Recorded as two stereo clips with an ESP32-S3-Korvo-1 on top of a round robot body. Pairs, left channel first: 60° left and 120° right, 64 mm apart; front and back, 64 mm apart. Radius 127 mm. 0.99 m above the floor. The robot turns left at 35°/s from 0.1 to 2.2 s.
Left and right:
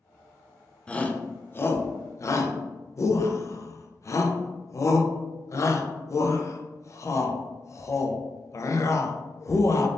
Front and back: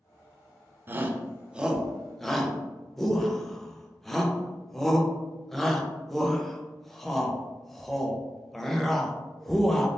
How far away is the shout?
About 0.6 m.